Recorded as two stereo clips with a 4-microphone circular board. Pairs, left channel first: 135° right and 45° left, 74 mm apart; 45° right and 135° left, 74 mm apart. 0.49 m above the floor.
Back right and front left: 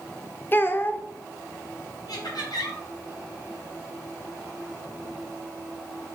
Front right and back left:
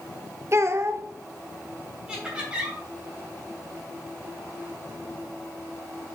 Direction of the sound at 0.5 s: 170° left.